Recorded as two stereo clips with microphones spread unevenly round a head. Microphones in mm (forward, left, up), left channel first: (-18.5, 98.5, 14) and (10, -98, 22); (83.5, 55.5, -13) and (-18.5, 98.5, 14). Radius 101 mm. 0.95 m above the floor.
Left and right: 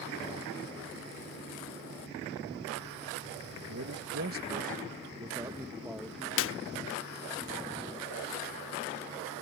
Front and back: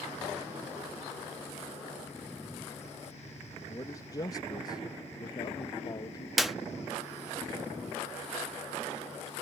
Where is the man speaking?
80° right; by 6.3 s 15° left.